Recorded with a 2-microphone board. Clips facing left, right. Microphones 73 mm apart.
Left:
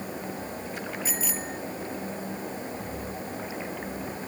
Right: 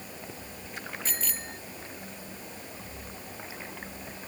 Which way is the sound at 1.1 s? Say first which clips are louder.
Left 6 dB; 10° left (ahead or behind).